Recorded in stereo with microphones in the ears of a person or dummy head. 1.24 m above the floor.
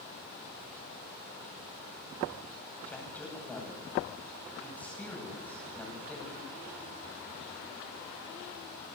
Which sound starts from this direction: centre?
A man speaking, at 2.9 s.